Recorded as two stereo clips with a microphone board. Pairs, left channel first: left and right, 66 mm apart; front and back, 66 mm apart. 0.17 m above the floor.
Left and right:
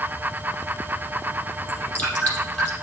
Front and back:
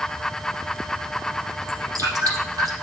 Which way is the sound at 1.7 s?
155° left.